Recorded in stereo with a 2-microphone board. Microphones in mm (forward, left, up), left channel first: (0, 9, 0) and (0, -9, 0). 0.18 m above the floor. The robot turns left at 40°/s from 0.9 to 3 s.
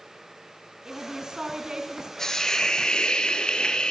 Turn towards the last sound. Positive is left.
turn(degrees=125)